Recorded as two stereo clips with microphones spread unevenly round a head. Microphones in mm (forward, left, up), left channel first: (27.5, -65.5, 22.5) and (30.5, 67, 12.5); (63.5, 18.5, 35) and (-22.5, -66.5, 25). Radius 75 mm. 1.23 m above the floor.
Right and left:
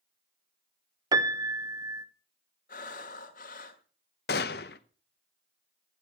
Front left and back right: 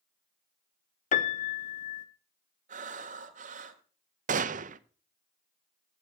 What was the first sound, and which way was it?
A piano, 30° left.